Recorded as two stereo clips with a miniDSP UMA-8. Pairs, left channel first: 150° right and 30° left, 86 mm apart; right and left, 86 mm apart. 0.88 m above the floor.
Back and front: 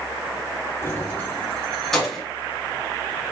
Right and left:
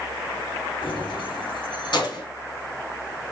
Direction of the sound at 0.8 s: 85° right.